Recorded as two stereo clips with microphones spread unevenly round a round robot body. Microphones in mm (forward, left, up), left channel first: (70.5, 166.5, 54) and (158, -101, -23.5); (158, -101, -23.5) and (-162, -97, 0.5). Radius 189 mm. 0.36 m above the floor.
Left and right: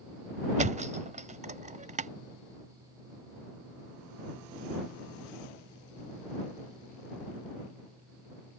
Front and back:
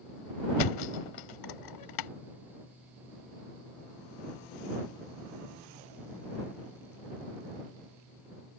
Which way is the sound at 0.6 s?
10° right.